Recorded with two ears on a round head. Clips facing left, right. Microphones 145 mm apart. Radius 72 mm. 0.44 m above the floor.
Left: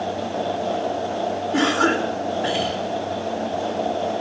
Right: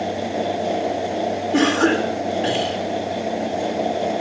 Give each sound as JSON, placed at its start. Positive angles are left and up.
{"t": 1.5, "sound": "a cough", "side_deg": -30, "distance_m": 1.5}